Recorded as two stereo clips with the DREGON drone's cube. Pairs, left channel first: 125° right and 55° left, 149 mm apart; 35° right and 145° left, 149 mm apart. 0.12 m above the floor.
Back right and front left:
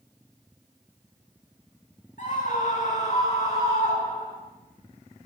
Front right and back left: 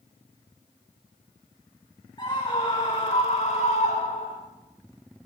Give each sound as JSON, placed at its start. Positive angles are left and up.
{"t": 2.2, "sound": "a scream", "azimuth_deg": -95, "distance_m": 7.5}